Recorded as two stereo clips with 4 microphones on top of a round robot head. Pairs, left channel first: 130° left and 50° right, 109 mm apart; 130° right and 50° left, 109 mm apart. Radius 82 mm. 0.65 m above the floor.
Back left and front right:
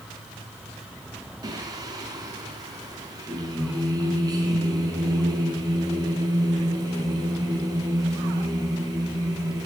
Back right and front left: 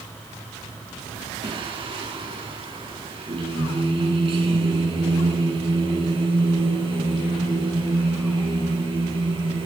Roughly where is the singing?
Ahead.